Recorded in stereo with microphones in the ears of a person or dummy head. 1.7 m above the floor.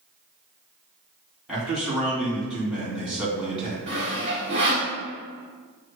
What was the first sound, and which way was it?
A man speaking, centre (ahead or behind).